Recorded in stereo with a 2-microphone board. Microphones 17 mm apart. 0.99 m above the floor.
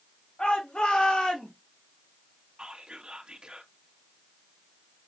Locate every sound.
0.4 s a shout: 75° left (ahead or behind), 3 m; by 1.5 s 65° left (ahead or behind), 1.9 m
2.6 s whispering: 70° right (ahead or behind), 1.3 m